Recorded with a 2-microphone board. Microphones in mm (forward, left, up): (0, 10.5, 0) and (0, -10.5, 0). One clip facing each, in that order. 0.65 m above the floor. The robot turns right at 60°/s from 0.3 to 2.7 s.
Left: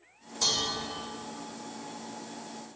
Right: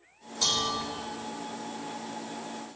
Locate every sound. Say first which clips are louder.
0.4 s dishes clattering: right 1 dB; 35° right (ahead or behind), 0.9 m; by 0.8 s 10° right (ahead or behind), 0.9 m